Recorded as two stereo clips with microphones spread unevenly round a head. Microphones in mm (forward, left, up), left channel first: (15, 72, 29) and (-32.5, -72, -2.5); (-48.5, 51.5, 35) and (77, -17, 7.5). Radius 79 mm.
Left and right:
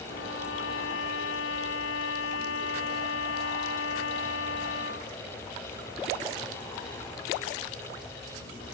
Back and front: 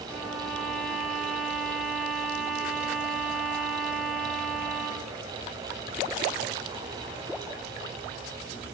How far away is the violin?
About 4.5 m.